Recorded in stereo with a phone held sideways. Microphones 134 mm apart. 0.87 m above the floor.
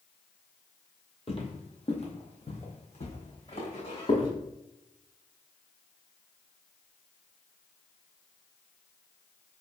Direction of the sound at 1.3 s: 45° left (ahead or behind).